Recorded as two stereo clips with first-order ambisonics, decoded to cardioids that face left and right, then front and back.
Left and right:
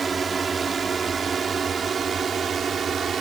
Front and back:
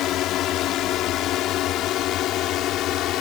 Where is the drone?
25° right; by 3.2 s 30° right.